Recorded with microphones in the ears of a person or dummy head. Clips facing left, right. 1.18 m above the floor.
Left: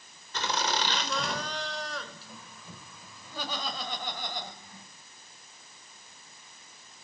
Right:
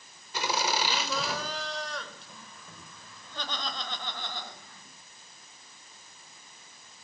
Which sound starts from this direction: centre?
Laughter, at 0.3 s.